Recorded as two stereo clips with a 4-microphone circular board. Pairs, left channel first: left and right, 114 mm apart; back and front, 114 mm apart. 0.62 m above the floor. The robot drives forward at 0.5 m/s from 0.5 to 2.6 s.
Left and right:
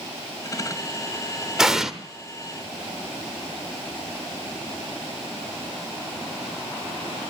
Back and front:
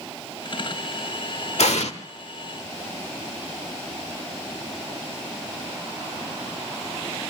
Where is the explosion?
175° right, 1.1 m.